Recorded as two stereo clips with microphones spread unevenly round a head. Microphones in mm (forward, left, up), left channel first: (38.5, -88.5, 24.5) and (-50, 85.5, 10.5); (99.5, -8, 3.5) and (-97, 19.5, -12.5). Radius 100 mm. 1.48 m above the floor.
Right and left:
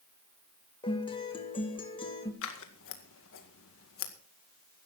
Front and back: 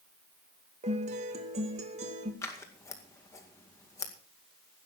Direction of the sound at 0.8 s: 130° right.